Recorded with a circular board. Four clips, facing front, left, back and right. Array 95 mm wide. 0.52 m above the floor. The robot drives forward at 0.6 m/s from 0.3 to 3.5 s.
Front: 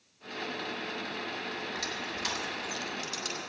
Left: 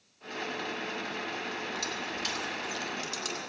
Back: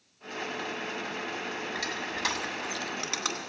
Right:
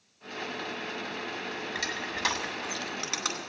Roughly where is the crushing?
Right.